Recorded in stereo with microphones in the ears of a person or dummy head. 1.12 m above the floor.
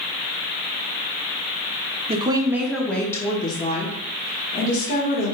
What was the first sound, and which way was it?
A woman speaking, 30° right (ahead or behind).